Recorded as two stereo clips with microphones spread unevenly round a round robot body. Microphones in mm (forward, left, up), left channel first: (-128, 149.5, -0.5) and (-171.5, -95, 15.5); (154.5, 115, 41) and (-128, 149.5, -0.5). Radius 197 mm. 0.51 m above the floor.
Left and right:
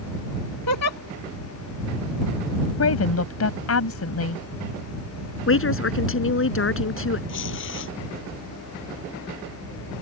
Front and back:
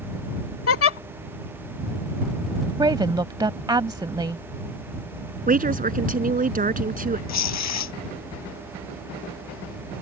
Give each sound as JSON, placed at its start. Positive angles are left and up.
{"t": 0.7, "sound": "a giggle", "azimuth_deg": 30}
{"t": 2.8, "sound": "a woman speaking", "azimuth_deg": 95}
{"t": 5.5, "sound": "a woman speaking", "azimuth_deg": 110}
{"t": 7.3, "sound": "tearing paper", "azimuth_deg": 20}